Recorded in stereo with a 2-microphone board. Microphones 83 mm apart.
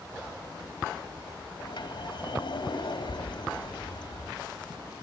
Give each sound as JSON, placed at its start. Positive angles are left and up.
{"t": 1.6, "sound": "a sliding door", "side_deg": 75, "distance_m": 3.5}